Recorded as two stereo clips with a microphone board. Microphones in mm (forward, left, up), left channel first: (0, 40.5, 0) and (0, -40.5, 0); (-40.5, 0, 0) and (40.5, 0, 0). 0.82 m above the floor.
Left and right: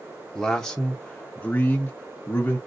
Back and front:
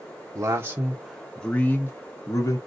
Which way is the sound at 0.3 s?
Straight ahead.